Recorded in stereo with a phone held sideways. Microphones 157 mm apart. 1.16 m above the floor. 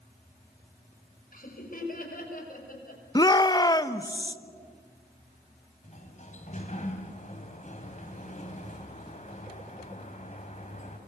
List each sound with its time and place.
1.3 s laughter: 60° left (ahead or behind), 5.5 m
3.1 s a shout: 25° left (ahead or behind), 0.9 m
5.8 s a sliding door: 45° left (ahead or behind), 3 m